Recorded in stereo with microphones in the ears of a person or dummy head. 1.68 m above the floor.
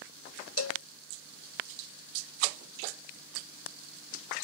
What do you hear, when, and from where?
0.6 s a cowbell: 75° left (ahead or behind)